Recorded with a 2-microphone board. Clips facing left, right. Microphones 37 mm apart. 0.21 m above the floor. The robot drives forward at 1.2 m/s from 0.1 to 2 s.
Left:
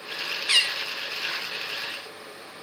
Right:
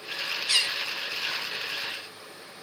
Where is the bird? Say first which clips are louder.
Left 4 dB; 30° left (ahead or behind), 0.6 m; by 1.6 s 10° left (ahead or behind), 1.6 m.